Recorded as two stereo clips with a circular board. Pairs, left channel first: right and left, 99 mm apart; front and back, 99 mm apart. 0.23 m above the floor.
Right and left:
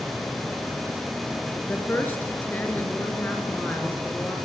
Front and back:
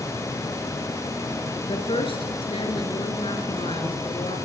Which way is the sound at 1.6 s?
20° right.